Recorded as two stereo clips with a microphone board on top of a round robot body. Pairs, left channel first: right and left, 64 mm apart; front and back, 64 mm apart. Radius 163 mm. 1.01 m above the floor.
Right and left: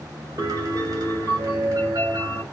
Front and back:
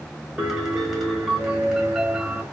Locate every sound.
0.4 s a piano: 100° left, 3 m